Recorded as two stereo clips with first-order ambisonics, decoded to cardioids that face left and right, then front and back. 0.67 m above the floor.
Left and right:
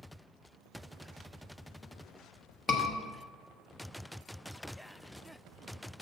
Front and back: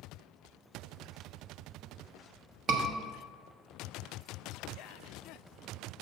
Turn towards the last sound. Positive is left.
turn(degrees=150)